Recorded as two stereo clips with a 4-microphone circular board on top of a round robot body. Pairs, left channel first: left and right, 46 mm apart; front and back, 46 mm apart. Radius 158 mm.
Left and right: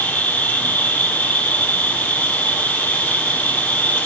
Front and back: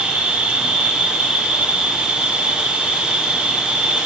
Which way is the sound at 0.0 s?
125° left.